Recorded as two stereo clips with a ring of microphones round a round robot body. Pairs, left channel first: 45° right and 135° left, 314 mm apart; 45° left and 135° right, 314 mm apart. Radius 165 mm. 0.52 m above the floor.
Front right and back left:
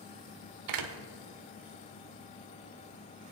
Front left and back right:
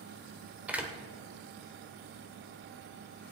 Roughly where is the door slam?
Behind left.